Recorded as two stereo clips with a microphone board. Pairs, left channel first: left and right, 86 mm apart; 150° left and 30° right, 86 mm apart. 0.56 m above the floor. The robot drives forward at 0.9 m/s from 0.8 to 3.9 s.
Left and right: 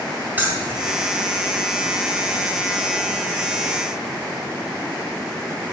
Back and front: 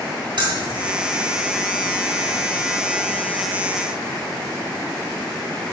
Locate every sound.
0.4 s keys jangling: 20° right, 1.7 m